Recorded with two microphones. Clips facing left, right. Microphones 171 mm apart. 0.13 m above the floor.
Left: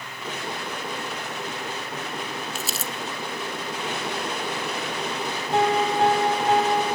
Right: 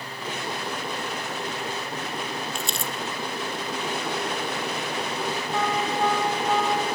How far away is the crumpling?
About 0.8 m.